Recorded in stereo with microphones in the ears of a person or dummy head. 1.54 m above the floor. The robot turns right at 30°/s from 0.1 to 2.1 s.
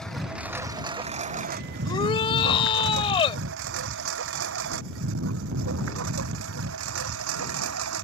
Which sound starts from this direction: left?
A shout, at 1.8 s.